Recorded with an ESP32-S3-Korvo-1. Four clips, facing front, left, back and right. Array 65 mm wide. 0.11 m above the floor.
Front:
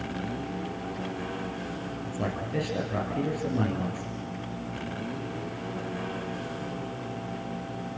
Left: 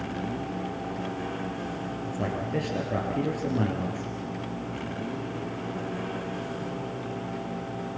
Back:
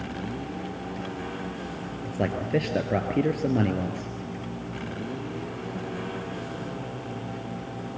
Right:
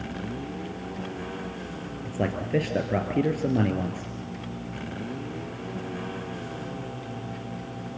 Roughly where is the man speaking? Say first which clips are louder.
Right 4 dB, back 6 dB; behind right.